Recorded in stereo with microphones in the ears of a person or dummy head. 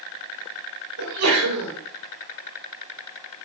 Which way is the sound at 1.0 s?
85° right.